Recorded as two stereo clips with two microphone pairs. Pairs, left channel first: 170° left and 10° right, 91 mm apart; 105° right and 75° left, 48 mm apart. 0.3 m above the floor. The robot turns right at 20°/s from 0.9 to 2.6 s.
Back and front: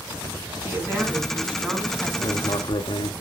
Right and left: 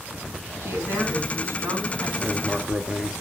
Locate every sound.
0.6 s a woman speaking: 55° left, 3 m; by 2.1 s 80° left, 3 m
2.2 s writing: 140° left, 0.7 m; by 3.1 s 150° left, 0.7 m